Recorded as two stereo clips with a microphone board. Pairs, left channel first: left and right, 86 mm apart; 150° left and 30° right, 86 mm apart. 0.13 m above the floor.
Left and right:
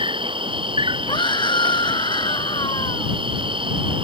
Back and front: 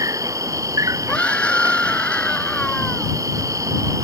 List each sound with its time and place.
0.0 s an insect: 80° right
1.1 s a scream: 75° left